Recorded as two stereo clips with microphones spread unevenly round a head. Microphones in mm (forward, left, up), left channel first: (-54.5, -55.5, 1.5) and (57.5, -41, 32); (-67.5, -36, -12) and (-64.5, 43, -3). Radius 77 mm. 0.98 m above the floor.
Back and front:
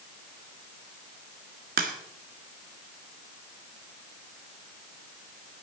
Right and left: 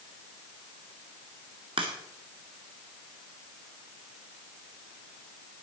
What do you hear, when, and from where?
1.8 s a crack: 25° left, 1.7 m